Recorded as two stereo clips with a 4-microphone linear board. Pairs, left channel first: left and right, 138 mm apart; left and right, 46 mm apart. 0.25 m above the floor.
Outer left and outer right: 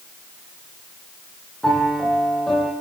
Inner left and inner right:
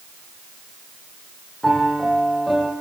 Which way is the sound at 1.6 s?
5° left (ahead or behind).